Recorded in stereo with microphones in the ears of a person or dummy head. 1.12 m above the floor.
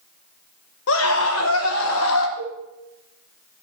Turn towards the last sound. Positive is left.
turn(degrees=20)  # may be behind; listen again after turning